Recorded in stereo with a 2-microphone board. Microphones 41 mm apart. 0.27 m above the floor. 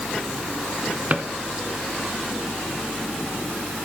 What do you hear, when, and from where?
1.1 s a drawer: 40° right (ahead or behind), 1.4 m